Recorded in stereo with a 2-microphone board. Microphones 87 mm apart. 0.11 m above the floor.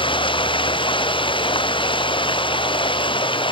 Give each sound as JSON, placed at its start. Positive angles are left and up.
{"t": 0.0, "sound": "running water", "side_deg": 85}